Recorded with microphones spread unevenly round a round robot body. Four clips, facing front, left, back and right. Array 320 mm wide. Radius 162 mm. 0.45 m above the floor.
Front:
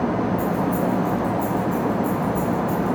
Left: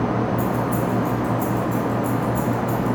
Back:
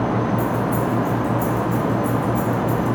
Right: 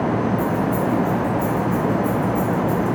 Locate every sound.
0.4 s keys jangling: 130° left, 6 m; by 3.0 s 165° left, 4 m